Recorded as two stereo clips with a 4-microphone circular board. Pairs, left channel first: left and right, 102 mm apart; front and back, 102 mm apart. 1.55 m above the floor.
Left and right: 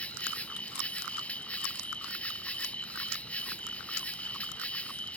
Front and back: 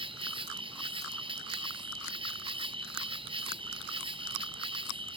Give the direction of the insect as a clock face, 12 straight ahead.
6 o'clock.